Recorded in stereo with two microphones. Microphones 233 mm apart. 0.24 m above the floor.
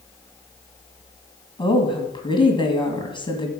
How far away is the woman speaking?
About 2.0 m.